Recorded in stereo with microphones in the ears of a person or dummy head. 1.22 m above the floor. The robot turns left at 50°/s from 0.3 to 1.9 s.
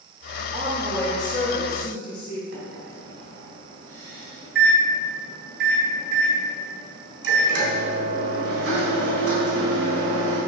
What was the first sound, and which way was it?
A woman speaking, 160° right.